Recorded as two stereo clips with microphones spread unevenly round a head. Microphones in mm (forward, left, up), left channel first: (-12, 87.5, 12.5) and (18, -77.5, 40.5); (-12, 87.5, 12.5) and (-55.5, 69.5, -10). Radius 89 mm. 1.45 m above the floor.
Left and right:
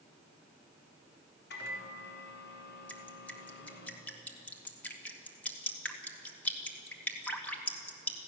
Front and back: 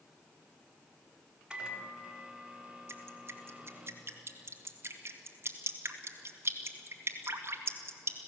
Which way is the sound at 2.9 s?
Straight behind.